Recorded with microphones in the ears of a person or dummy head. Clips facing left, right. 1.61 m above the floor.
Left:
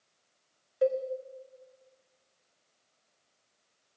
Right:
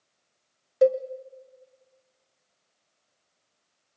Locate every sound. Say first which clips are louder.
0.8 s a cowbell: right 7 dB; 60° right (ahead or behind), 0.8 m